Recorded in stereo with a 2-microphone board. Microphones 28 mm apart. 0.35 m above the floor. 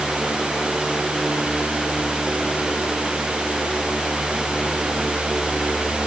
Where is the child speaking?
No child speaking in this recording.